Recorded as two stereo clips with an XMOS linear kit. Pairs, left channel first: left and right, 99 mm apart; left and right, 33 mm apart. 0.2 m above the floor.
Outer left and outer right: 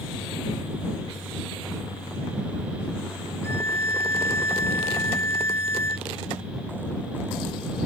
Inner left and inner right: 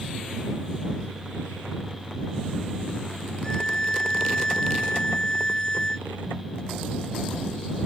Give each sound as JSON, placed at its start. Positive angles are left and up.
{"t": 3.4, "sound": "a violin", "side_deg": 25}